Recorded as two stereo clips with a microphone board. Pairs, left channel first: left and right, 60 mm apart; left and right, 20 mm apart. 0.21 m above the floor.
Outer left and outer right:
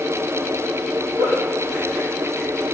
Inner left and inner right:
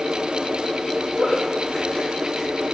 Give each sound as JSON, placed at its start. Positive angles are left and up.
{"t": 1.2, "sound": "a giggle", "side_deg": -45, "distance_m": 4.5}